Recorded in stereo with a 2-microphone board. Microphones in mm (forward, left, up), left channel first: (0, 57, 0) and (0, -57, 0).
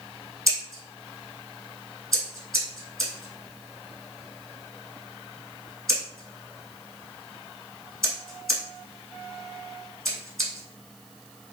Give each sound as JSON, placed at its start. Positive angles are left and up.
{"t": 0.5, "sound": "scissors", "side_deg": 0, "distance_m": 1.0}